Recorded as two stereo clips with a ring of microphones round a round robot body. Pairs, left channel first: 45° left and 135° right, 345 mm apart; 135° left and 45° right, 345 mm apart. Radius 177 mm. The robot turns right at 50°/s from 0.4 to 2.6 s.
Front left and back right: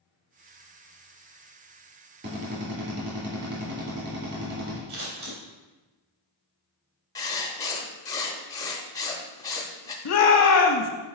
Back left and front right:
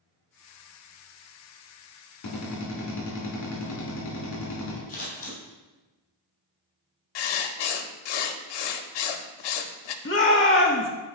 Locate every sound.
2.2 s a drill: 165° left, 2.5 m; by 4.8 s 175° right, 2.5 m
4.9 s scissors: 160° right, 2.5 m
7.2 s writing: 125° left, 0.7 m
10.1 s a shout: 70° left, 1.1 m